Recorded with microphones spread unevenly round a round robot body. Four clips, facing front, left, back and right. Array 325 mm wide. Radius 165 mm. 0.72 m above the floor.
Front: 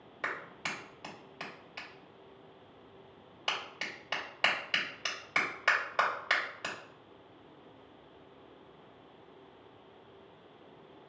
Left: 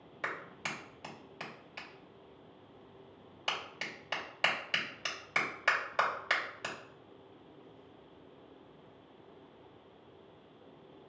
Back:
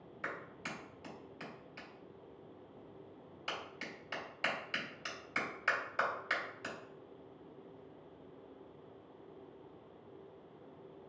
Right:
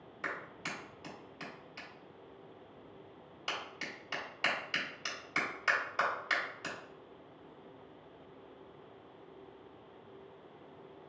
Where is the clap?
35° left, 2.5 m.